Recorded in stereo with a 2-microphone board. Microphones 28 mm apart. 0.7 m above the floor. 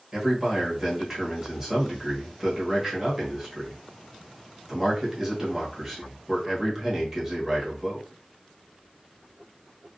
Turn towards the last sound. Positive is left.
turn(degrees=-15)  # may be behind; listen again after turning